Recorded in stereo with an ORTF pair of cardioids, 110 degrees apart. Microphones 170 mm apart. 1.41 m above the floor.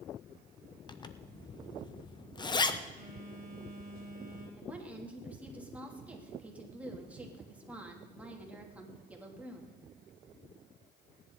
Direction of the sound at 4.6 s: 10° right.